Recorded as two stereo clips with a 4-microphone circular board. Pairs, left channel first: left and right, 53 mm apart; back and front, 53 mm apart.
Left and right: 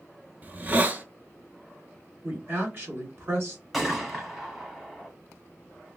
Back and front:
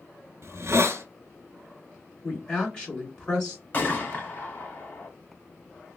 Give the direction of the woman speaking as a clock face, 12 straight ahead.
4 o'clock.